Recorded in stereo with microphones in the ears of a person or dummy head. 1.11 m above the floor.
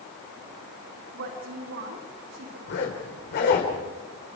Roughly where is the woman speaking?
Right.